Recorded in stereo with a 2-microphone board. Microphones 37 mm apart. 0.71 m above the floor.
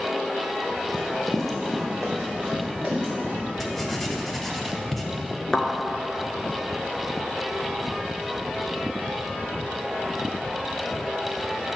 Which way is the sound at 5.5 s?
20° left (ahead or behind).